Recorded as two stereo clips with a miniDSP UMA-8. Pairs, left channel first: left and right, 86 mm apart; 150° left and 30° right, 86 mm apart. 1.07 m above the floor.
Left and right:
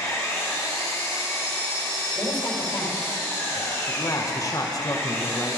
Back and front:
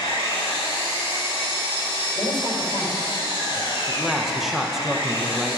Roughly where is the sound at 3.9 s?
Ahead left.